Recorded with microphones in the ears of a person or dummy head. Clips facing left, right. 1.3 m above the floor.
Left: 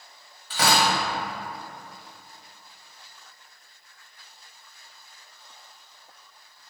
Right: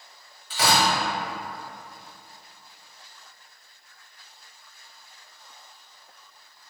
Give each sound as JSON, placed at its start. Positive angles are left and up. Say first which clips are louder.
{"t": 0.5, "sound": "tearing paper", "louder": "even", "side_deg": 45, "distance_m": 1.4}